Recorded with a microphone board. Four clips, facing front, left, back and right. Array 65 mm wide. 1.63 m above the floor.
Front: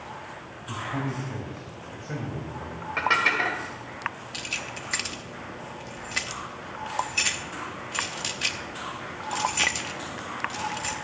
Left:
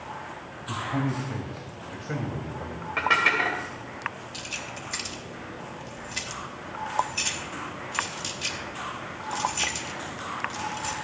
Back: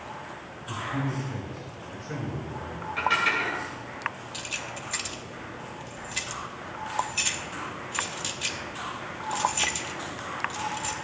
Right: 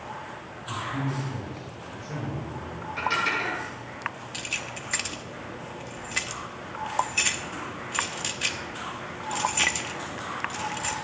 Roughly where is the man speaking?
Left.